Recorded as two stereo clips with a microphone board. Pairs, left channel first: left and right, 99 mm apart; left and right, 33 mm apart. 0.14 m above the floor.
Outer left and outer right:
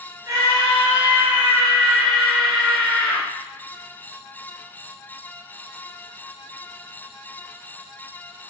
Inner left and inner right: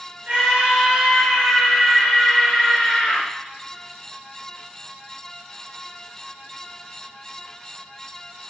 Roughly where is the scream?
Right.